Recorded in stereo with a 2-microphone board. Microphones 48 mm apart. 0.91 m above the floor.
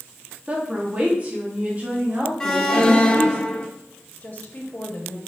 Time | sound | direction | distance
0.5 | a woman speaking | 30° right (ahead or behind) | 1.2 m
2.4 | an alarm | 10° left (ahead or behind) | 0.9 m
4.2 | a woman speaking | 40° left (ahead or behind) | 1.5 m